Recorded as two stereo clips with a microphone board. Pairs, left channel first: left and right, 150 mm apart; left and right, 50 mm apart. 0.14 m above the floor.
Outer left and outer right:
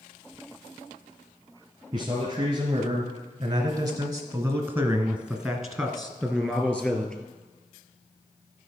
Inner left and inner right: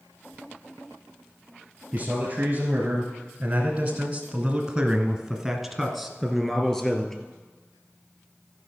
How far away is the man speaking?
About 2 m.